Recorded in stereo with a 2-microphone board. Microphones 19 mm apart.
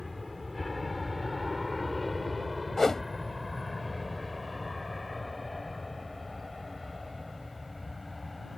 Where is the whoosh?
25° left (ahead or behind).